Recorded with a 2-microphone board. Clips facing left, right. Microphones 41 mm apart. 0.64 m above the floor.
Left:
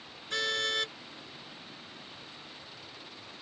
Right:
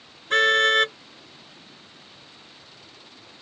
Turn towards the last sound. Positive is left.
turn(degrees=-50)  # may be behind; listen again after turning